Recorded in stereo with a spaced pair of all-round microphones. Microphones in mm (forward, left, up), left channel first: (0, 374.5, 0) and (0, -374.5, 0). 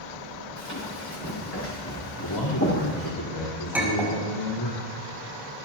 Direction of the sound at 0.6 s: 20° left (ahead or behind).